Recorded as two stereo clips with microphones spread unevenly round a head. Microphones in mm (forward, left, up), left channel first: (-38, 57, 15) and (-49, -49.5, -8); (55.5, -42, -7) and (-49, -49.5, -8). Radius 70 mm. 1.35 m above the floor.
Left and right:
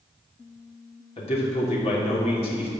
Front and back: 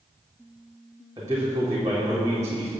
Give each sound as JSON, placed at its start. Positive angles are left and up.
{"t": 1.2, "sound": "a man speaking", "azimuth_deg": 115, "distance_m": 3.0}